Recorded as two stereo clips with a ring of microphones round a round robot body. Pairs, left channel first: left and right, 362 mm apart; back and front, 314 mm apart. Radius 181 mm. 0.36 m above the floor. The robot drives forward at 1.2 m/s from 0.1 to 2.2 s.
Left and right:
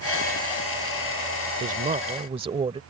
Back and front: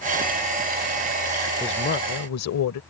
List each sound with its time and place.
1.6 s a woman speaking: 110° right; by 2.8 s 160° right